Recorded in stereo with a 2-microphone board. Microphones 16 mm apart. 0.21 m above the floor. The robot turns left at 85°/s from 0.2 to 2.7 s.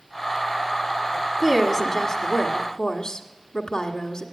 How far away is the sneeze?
I don't hear a sneeze.